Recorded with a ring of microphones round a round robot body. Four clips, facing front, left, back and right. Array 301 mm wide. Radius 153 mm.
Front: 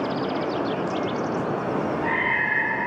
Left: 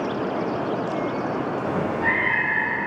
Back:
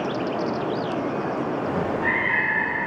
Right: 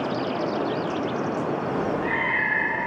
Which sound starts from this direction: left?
A cat meowing, at 1.6 s.